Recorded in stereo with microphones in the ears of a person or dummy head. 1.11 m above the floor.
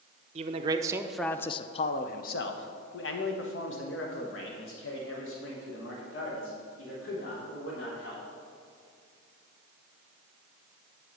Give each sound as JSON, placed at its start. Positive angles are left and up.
{"t": 0.3, "sound": "a man speaking", "side_deg": -35, "distance_m": 0.7}